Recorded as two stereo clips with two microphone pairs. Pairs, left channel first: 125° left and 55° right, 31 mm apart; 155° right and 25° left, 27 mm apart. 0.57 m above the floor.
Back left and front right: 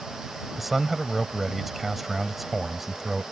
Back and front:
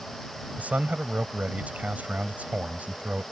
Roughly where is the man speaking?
Ahead left.